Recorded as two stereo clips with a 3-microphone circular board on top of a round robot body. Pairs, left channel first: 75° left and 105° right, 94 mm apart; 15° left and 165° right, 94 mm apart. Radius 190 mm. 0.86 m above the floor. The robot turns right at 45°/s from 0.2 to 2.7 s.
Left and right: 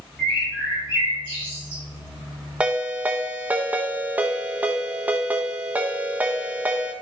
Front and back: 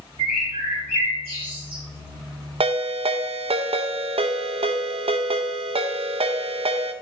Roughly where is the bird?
Behind.